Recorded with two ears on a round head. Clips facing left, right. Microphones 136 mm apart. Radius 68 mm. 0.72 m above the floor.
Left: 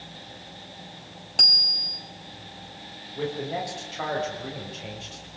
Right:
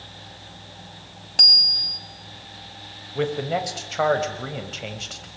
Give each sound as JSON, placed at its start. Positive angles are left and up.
{"t": 1.4, "sound": "a bicycle bell", "side_deg": 0, "distance_m": 3.5}
{"t": 3.1, "sound": "a man speaking", "side_deg": -80, "distance_m": 5.0}